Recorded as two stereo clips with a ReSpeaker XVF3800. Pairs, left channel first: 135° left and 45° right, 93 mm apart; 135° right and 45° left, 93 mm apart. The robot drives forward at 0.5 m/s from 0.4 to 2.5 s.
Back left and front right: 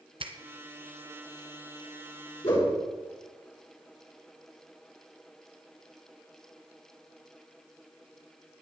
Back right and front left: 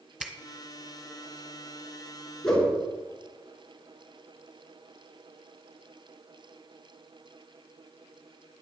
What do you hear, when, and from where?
0.2 s a finger snap: 35° right, 1.6 m
2.4 s a whoosh: 140° left, 5.5 m